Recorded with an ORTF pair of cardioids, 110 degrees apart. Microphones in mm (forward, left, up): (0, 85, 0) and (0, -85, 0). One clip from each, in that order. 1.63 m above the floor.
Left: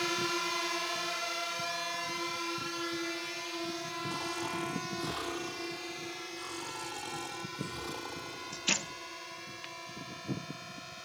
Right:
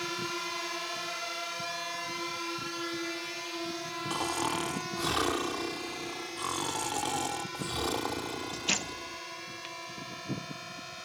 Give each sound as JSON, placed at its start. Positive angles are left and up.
{"t": 0.0, "sound": "a drone", "azimuth_deg": 25}
{"t": 4.1, "sound": "snoring", "azimuth_deg": -60}